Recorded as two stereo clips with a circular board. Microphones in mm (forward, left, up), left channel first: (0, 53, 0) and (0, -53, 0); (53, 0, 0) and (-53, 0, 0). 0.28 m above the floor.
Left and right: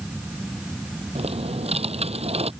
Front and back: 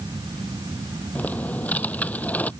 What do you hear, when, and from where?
1.1 s typing on a keyboard: 75° right